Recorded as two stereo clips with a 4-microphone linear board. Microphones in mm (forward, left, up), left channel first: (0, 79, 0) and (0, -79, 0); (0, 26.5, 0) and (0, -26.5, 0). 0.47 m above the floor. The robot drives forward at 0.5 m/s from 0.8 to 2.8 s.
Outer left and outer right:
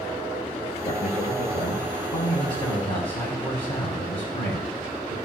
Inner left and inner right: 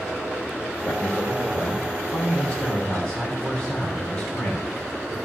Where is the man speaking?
40° left (ahead or behind), 2 m; by 5.2 s 30° left (ahead or behind), 3 m.